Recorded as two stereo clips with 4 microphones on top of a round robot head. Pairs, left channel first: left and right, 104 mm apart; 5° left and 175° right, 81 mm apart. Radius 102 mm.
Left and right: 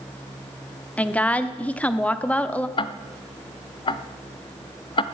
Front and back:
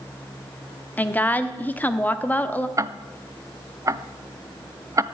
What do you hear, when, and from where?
1.0 s a woman speaking: 30° left, 1.0 m
2.8 s ticking: 130° left, 0.7 m